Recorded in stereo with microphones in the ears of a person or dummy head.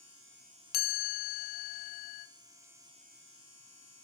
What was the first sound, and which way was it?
A chime, 50° left (ahead or behind).